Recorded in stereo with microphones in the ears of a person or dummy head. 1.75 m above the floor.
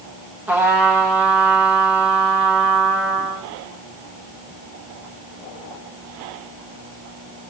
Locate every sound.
0.5 s a trumpet: 5° right (ahead or behind), 1.6 m